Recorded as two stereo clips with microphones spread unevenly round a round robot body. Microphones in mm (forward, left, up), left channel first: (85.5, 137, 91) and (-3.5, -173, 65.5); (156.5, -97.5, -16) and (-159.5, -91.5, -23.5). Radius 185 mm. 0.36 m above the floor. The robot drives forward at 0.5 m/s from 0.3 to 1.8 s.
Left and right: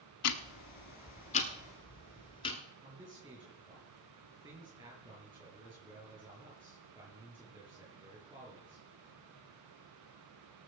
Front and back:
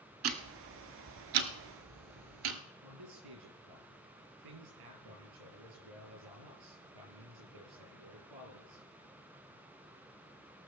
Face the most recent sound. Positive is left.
turn(degrees=175)